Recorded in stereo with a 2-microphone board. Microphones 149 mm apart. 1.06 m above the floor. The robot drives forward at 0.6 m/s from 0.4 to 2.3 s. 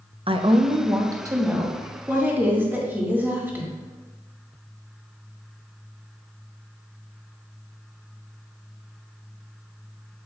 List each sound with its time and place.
0.3 s a woman speaking: 35° right (ahead or behind), 0.5 m; by 3.7 s 15° right (ahead or behind), 1.5 m